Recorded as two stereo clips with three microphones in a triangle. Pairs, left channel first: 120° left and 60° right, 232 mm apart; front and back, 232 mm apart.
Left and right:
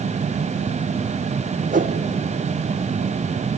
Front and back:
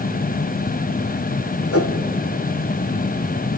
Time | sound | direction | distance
1.7 | a whoosh | 5° right | 2 m